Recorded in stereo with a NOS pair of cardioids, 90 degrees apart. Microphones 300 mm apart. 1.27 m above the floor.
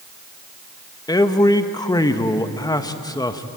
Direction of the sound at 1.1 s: 15° left.